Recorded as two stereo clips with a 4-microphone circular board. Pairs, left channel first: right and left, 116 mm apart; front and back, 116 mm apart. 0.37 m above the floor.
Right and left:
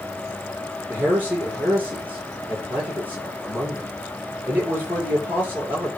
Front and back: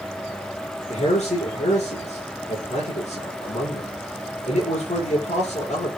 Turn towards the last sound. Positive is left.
turn(degrees=15)